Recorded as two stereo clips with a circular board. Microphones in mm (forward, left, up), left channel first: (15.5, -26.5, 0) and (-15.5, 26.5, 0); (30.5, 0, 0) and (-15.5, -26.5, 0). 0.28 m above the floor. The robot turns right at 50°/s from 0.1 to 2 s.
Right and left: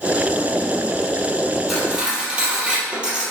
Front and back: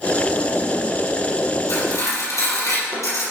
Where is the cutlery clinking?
30° left, 4.5 m; by 3.2 s 45° left, 4.5 m.